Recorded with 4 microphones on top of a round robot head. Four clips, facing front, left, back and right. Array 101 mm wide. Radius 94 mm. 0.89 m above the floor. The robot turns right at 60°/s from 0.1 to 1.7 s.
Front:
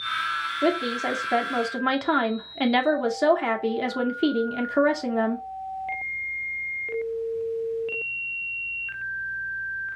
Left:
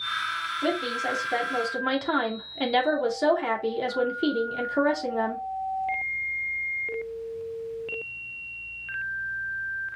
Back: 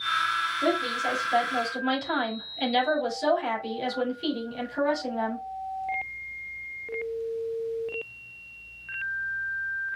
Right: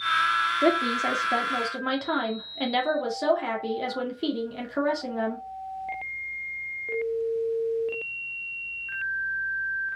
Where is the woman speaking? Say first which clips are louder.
Right 2 dB, front 4 dB; 70° right, 1.9 m; by 5.4 s 5° right, 1.9 m.